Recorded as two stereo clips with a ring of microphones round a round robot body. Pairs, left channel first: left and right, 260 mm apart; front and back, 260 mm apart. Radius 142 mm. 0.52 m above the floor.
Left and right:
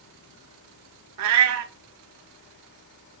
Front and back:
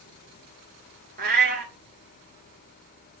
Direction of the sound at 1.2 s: 125° right.